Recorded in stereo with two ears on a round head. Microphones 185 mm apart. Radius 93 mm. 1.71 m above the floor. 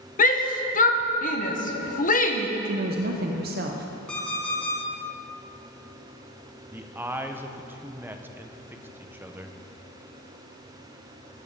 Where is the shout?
45° left (ahead or behind), 1.0 m.